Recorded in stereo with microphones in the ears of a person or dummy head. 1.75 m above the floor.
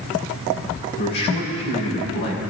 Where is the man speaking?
60° left (ahead or behind), 6 m.